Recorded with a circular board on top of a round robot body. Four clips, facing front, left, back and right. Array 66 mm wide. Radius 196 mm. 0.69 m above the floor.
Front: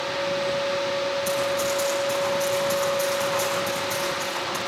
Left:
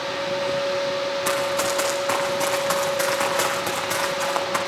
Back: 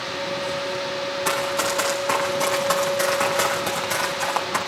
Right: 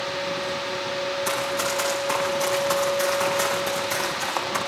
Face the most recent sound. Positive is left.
turn(degrees=130)